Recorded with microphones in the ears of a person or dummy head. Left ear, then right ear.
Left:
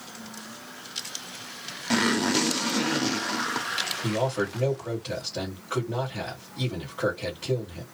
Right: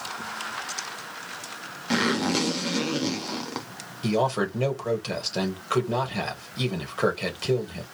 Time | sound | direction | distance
1.9 | a zipper | centre (ahead or behind) | 0.6 m
4.0 | a man speaking | 70° right (ahead or behind) | 1.6 m